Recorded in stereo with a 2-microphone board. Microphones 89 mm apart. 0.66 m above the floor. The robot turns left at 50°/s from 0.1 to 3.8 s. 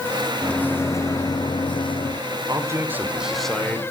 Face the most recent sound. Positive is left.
turn(degrees=160)